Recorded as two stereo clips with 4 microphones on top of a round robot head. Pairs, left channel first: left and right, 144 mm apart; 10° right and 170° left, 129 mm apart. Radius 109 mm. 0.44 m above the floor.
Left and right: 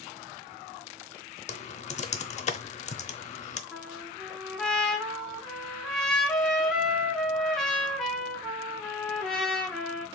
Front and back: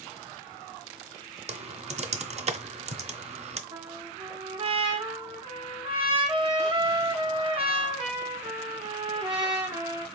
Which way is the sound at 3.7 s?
175° left.